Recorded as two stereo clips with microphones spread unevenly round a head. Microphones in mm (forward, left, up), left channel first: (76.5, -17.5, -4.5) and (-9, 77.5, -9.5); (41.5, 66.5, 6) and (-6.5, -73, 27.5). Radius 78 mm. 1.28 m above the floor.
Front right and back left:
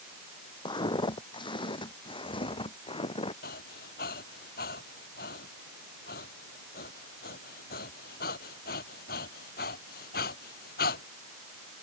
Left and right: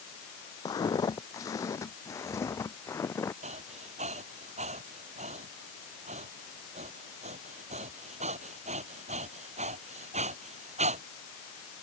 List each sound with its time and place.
0.7 s footsteps: straight ahead; by 3.3 s 5° right
3.4 s breathing: 65° right